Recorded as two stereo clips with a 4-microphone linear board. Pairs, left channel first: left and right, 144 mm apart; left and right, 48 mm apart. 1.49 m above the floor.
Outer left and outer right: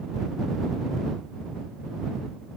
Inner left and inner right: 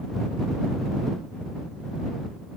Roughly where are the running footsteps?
I don't hear running footsteps.